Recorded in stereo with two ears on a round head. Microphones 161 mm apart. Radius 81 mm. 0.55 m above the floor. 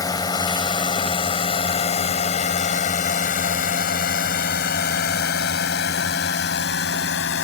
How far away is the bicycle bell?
No bicycle bell in this recording.